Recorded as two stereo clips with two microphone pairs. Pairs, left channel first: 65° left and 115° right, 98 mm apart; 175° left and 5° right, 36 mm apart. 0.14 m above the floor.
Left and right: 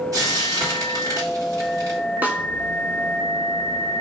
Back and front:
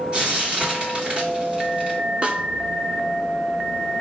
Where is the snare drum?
55° right, 0.7 m.